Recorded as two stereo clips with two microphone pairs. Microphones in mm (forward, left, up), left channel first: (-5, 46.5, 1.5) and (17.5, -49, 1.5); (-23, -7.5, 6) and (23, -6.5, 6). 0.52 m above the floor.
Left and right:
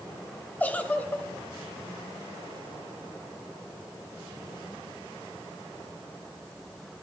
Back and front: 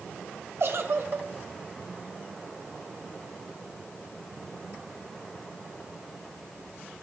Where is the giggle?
30° left, 1.2 m.